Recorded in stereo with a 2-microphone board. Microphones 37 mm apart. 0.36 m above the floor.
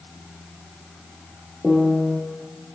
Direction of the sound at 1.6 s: Centre (ahead or behind).